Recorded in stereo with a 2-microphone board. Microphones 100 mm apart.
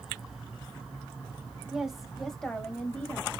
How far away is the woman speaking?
About 1.0 m.